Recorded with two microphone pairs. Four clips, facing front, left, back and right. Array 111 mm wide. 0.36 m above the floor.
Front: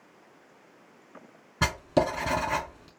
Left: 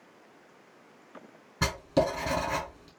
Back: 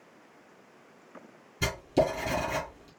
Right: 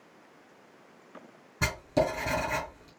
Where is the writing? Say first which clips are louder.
Left 1 dB, front 1 dB; 5° left, 2.5 m.